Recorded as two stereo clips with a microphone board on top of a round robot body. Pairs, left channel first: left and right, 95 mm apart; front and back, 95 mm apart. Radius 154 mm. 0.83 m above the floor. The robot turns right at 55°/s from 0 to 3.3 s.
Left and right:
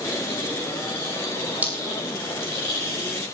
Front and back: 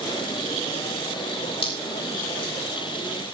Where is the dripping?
15° right, 6 m; by 3.3 s 75° left, 6 m.